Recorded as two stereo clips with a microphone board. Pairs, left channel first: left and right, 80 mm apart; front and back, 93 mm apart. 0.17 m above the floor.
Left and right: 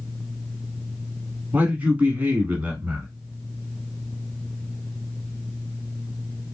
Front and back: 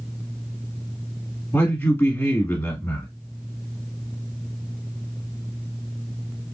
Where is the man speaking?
40° right, 1.2 m.